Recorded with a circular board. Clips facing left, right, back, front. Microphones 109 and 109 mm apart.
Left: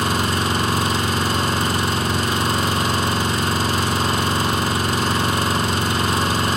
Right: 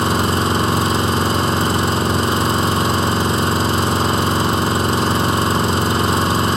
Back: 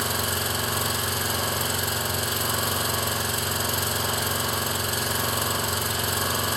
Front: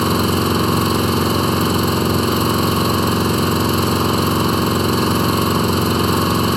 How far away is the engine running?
About 2.5 m.